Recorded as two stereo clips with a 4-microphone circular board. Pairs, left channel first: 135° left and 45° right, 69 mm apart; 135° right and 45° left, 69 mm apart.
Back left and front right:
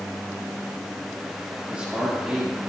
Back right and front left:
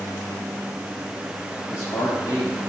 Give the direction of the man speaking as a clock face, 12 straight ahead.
4 o'clock.